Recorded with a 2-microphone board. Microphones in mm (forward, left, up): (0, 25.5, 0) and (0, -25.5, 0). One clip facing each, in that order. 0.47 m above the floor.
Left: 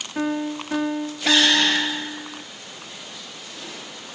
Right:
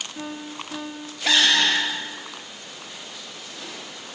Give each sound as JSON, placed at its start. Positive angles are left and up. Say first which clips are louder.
{"t": 0.1, "sound": "a piano", "louder": "left 13 dB", "side_deg": 65, "distance_m": 3.5}